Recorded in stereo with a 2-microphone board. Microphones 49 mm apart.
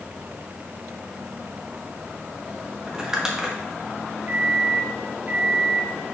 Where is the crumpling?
15° right (ahead or behind), 1.4 m.